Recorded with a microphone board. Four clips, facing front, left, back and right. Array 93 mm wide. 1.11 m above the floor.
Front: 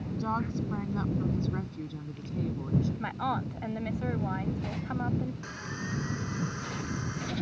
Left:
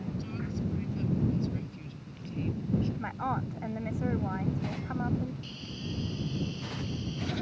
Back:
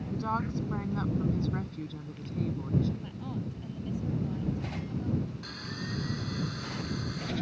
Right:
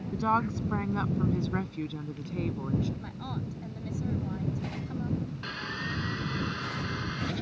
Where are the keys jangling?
I don't hear keys jangling.